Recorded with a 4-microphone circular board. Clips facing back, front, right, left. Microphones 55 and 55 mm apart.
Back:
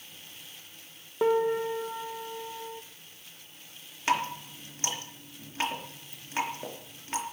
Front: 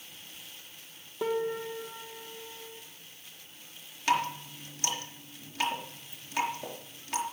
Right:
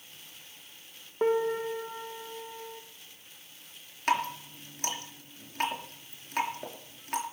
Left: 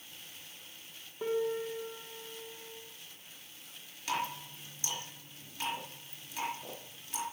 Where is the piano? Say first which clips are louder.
Back 6 dB, right 6 dB; 130° right, 1.3 m.